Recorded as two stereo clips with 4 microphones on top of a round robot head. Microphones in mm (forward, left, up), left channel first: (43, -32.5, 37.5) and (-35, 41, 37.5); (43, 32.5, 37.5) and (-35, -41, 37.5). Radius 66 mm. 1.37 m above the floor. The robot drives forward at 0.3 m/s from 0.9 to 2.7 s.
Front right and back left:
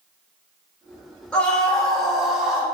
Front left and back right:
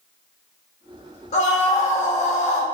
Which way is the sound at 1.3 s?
35° left.